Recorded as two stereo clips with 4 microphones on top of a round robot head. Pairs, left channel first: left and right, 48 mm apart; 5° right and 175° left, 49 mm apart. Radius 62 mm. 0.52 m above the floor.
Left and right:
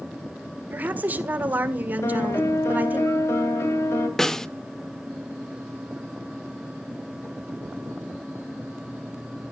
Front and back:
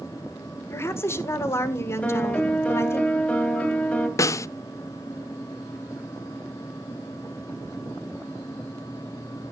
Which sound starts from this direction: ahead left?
A piano, at 2.0 s.